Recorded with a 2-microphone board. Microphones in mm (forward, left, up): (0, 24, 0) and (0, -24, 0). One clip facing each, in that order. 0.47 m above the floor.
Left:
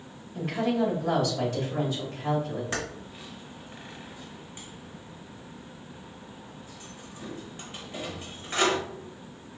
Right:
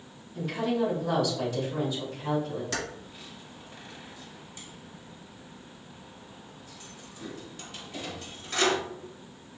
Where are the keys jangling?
25° left (ahead or behind), 1.2 m.